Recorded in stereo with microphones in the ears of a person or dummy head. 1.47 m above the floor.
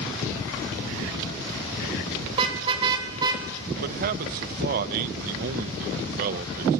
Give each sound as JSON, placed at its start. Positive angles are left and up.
{"t": 2.3, "sound": "a car horn", "side_deg": -30, "distance_m": 3.5}
{"t": 3.8, "sound": "a man speaking", "side_deg": -50, "distance_m": 1.0}